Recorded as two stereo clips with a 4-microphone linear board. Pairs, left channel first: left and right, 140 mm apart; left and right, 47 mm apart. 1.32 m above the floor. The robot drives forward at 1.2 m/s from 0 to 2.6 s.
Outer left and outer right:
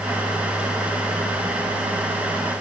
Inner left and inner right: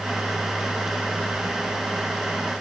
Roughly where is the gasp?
I don't hear a gasp.